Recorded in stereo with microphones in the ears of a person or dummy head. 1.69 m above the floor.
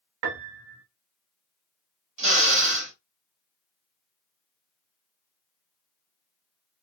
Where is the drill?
70° right (ahead or behind), 1.6 m.